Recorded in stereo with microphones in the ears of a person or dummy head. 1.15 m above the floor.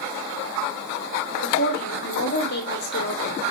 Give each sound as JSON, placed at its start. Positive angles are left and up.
{"t": 1.4, "sound": "a woman speaking", "side_deg": 55, "distance_m": 1.8}